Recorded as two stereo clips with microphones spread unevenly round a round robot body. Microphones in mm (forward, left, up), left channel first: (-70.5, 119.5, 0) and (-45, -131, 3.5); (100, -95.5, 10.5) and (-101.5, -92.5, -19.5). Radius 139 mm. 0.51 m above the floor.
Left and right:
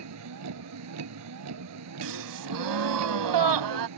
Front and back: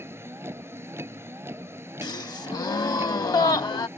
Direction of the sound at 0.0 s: 100° right.